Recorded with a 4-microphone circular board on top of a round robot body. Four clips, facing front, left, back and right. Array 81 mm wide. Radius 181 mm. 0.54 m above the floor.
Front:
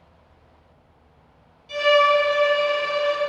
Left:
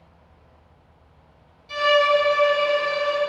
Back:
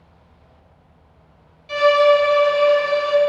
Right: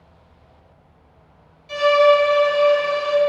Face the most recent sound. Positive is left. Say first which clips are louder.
# right 4 dB, back 3 dB
turn(degrees=-165)